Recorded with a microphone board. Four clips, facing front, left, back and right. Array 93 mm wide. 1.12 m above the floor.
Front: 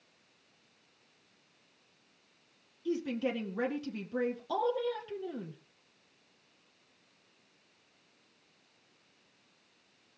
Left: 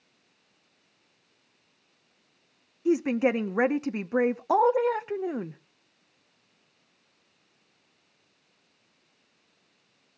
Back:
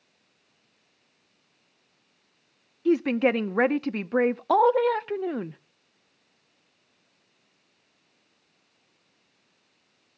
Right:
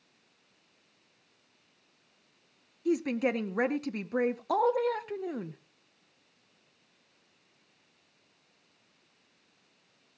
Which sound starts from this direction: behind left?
A woman speaking, at 2.9 s.